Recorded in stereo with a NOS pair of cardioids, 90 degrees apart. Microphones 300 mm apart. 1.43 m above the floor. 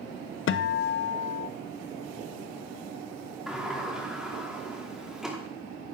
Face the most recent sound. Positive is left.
turn(degrees=0)